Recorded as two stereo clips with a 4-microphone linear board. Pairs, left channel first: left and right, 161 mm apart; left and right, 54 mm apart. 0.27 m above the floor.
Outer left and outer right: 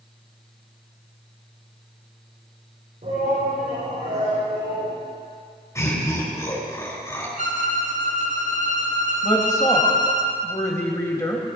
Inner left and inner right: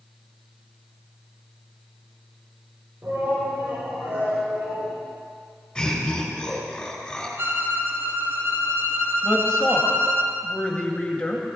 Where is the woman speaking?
20° left (ahead or behind), 1.6 m.